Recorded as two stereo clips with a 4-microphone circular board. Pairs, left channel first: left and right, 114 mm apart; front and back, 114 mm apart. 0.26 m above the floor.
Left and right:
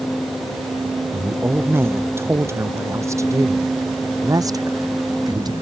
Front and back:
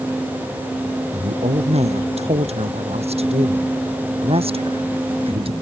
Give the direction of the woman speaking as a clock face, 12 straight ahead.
5 o'clock.